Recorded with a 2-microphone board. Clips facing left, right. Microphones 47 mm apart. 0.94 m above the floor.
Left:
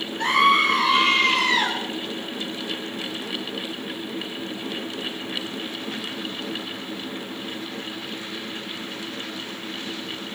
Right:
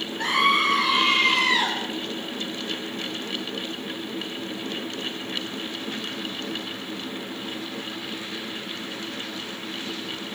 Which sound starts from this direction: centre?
A scream, at 0.2 s.